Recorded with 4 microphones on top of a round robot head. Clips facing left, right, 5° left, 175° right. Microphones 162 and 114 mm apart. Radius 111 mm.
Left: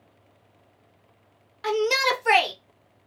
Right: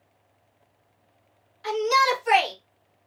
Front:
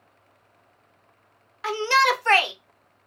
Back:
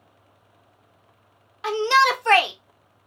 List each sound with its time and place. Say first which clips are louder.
1.6 s a shout: even, back 2 dB; 115° left, 0.9 m